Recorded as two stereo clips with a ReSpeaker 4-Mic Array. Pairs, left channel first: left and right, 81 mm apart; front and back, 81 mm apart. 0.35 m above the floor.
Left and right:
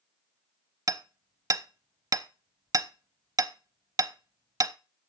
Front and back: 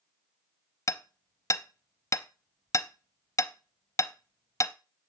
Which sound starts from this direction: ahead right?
Hammering, at 0.9 s.